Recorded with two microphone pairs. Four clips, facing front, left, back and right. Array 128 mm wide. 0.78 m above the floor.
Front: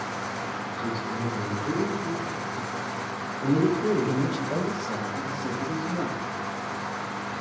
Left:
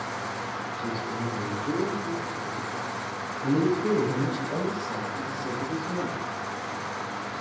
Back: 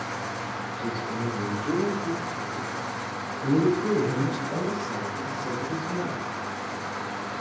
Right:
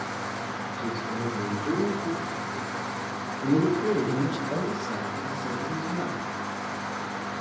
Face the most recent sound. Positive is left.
turn(degrees=5)